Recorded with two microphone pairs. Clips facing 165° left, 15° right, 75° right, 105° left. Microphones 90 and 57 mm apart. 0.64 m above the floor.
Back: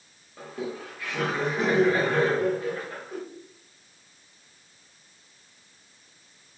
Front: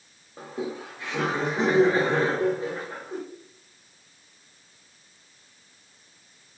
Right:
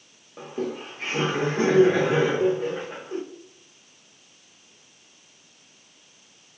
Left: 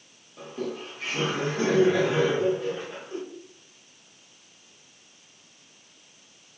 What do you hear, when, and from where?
0.4 s laughter: 70° right, 0.6 m